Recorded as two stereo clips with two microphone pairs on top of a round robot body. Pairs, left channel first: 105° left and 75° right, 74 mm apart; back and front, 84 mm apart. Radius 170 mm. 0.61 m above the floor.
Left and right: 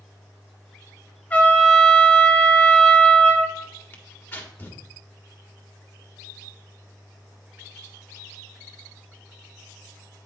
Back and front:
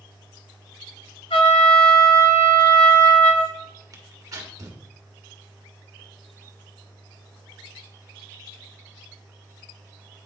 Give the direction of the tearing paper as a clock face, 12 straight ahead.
11 o'clock.